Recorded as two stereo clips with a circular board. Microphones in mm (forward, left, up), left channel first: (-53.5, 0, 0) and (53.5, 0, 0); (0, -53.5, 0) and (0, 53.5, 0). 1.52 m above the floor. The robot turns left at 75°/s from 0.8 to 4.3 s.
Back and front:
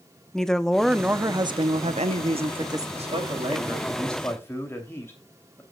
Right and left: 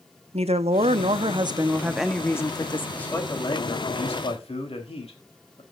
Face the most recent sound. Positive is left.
turn(degrees=-110)